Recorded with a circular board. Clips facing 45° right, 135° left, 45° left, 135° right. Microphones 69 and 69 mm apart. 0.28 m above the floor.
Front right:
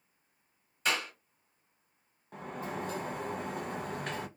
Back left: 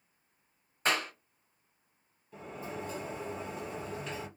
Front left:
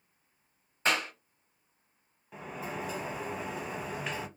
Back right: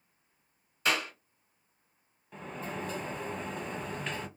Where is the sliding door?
40° right, 0.6 m.